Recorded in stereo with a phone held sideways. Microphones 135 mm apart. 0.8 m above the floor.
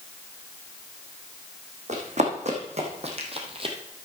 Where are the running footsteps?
60° right (ahead or behind), 3 m; by 3.8 s 40° right (ahead or behind), 1.6 m.